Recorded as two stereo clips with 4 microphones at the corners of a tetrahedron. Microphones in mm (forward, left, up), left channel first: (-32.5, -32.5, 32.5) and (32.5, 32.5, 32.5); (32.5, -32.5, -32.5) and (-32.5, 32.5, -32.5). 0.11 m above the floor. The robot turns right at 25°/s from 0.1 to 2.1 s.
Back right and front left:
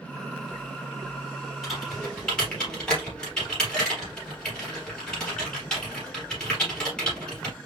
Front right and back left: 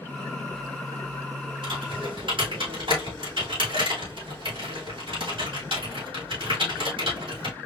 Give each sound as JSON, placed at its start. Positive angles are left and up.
{"t": 1.6, "sound": "typing on a keyboard", "azimuth_deg": 135, "distance_m": 3.5}